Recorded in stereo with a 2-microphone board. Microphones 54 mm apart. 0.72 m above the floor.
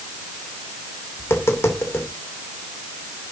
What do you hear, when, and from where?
1.2 s tapping: 50° left (ahead or behind), 2.5 m